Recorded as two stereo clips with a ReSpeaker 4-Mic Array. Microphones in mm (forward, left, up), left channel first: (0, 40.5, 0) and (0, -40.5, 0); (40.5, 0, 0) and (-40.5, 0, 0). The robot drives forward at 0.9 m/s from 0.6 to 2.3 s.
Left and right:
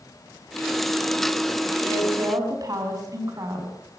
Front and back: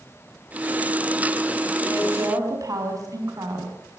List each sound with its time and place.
1.8 s a woman speaking: 130° right, 5 m; by 3.8 s 135° right, 5.5 m